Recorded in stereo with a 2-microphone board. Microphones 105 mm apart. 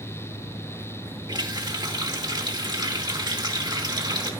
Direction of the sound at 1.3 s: 45° right (ahead or behind).